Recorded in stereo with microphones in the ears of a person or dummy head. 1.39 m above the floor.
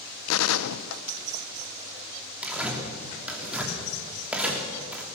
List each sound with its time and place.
0.3 s a gunshot: 85° left, 0.8 m
2.4 s tearing paper: 10° right (ahead or behind), 3 m